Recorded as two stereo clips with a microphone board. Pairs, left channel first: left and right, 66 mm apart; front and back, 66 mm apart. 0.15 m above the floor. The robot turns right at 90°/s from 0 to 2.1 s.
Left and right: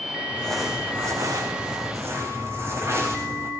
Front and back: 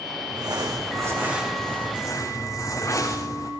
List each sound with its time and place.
0.3 s crumpling: 150° left, 5 m; by 3.5 s 45° right, 5 m